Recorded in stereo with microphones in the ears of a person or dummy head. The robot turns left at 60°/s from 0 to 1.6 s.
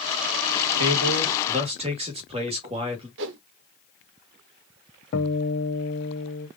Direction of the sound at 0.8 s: 100° right.